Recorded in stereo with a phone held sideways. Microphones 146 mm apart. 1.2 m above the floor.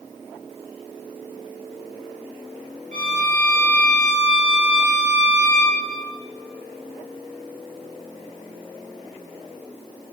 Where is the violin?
65° right (ahead or behind), 4.5 m.